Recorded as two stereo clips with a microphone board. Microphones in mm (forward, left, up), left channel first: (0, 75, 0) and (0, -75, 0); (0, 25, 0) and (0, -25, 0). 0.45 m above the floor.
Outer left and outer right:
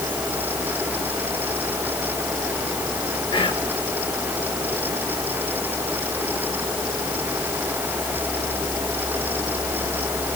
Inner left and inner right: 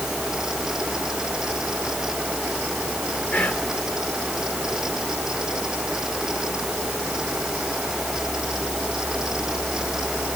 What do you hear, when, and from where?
3.3 s whispering: 35° left (ahead or behind), 1.2 m